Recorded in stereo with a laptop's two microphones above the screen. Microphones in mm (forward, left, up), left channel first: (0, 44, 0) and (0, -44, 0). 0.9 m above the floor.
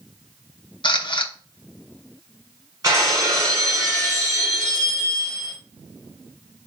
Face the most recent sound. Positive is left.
turn(degrees=-45)  # may be behind; listen again after turning